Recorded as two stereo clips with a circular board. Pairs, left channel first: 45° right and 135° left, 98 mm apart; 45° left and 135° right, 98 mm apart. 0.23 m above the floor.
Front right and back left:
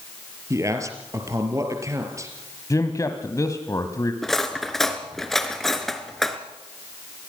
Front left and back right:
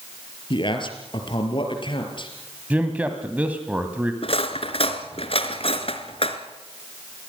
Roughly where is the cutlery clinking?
Ahead left.